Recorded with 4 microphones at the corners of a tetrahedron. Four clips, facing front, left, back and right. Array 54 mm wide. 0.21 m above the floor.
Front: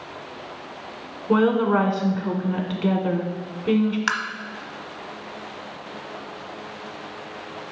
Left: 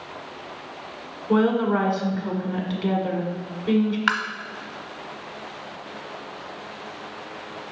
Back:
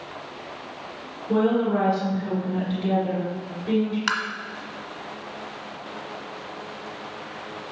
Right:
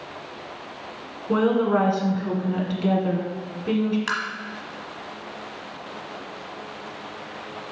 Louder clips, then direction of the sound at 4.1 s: Left 4 dB, front 1 dB; 80° left.